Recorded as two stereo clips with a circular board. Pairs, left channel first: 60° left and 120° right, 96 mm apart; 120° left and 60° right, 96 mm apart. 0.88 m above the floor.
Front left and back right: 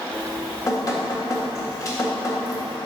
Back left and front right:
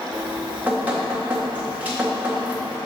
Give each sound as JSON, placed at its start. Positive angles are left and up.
{"t": 0.1, "sound": "dripping", "azimuth_deg": 10, "distance_m": 1.6}